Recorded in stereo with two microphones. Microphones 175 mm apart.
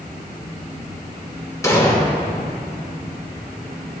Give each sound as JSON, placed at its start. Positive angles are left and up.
{"t": 1.6, "sound": "an explosion", "side_deg": 20, "distance_m": 1.1}